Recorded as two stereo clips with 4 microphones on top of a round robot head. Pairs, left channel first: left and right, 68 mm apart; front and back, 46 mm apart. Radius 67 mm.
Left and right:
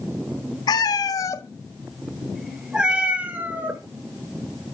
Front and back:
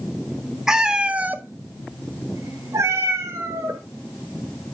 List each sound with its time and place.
0.7 s a cat meowing: 100° left, 0.8 m; by 3.8 s 150° right, 1.4 m